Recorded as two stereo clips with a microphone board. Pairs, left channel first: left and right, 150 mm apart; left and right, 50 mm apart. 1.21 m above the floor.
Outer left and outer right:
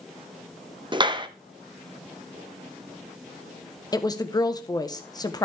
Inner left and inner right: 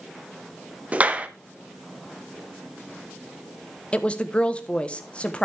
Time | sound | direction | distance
0.9 | a clap | 30° right (ahead or behind) | 0.8 m
3.9 | a woman speaking | 25° left (ahead or behind) | 1.1 m